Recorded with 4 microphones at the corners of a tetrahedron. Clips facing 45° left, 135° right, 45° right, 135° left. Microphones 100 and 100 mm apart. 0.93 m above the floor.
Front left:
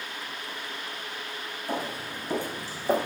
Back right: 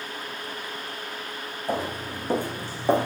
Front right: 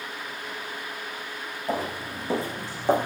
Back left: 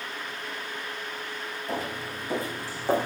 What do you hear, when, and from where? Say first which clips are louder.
1.7 s footsteps: back right 4 dB, front right 4 dB; 95° right, 4 m; by 3.1 s 120° right, 3 m